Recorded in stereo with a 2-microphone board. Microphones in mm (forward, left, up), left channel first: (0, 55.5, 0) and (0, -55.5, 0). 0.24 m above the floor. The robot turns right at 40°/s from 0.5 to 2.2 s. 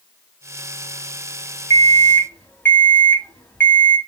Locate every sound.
1.7 s an alarm clock: 30° left (ahead or behind), 0.9 m; by 4.0 s 15° left (ahead or behind), 0.9 m